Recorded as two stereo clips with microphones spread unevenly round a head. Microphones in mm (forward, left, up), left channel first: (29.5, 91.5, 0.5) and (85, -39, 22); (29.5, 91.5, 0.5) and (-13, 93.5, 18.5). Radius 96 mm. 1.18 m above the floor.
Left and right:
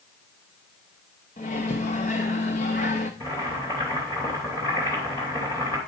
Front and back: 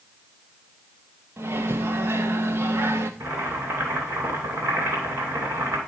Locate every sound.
1.4 s a microwave: 170° left, 1.0 m
3.2 s boiling: 170° right, 3 m